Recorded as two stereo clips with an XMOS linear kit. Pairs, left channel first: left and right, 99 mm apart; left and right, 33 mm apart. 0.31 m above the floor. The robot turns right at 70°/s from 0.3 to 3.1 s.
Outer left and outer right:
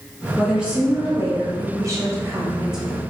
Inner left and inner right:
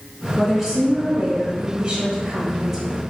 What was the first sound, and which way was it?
A woman speaking, straight behind.